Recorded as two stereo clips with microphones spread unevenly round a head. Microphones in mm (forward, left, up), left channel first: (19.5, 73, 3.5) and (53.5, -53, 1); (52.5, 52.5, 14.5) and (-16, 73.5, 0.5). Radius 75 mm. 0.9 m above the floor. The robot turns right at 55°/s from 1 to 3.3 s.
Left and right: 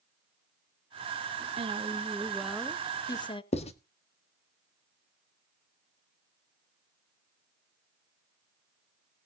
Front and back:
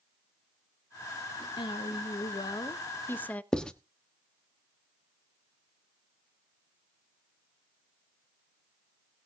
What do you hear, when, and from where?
1.6 s a woman speaking: 40° right, 0.8 m; by 3.4 s 55° left, 0.8 m
3.5 s writing: 65° left, 1.2 m